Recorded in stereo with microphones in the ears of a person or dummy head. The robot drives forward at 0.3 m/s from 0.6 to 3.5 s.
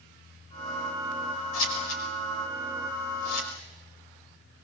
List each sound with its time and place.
1.5 s scissors: 80° left, 5.5 m; by 3.5 s 85° left, 5.5 m